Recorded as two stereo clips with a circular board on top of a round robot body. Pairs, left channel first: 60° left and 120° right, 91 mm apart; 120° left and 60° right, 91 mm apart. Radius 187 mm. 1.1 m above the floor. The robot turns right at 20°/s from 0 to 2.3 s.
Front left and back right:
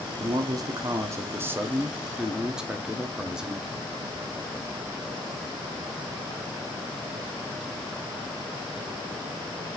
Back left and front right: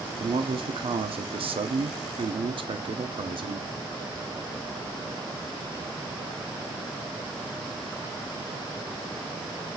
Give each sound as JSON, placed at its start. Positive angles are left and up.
{"t": 0.2, "sound": "a man speaking", "azimuth_deg": -80, "distance_m": 0.6}